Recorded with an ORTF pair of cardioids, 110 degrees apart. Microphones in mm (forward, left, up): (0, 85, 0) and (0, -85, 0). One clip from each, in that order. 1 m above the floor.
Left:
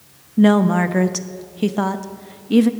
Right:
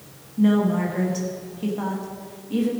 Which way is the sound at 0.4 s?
65° left.